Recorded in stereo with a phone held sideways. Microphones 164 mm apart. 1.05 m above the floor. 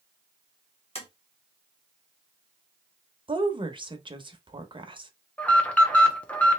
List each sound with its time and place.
0.9 s tapping: 40° left (ahead or behind), 1.6 m
3.3 s a woman speaking: 30° right (ahead or behind), 0.8 m
5.4 s an alarm: 10° left (ahead or behind), 0.8 m